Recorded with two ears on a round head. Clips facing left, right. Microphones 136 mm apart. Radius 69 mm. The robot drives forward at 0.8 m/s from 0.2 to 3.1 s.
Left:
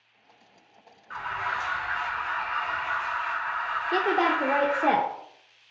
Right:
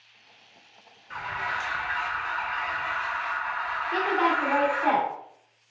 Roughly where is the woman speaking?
Left.